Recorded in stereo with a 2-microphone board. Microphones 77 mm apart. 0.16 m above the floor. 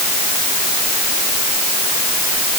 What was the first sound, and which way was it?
Only background noise.